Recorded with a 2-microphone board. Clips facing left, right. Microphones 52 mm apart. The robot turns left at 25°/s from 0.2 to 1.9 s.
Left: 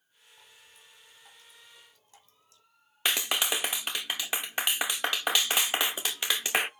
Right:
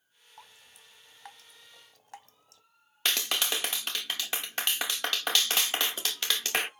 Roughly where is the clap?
Centre.